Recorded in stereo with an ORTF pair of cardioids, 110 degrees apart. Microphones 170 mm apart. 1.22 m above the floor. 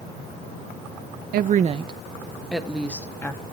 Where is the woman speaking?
60° right, 0.9 m; by 3.4 s 15° left, 2 m.